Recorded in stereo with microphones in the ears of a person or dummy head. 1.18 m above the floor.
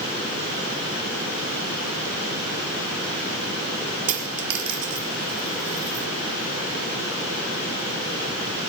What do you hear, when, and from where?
4.1 s a dropped coin: 75° right (ahead or behind), 5 m